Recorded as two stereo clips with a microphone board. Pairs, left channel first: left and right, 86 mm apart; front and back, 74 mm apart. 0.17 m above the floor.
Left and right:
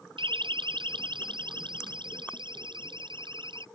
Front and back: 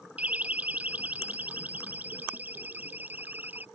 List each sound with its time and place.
0.2 s a siren: 110° right; by 3.6 s 115° right